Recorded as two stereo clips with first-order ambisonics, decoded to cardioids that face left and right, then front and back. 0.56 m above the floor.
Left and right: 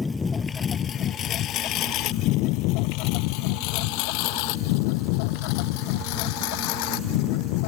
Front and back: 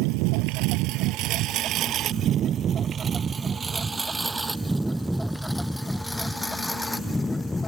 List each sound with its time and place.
0.0 s a lawn mower: 170° left; by 7.7 s 80° left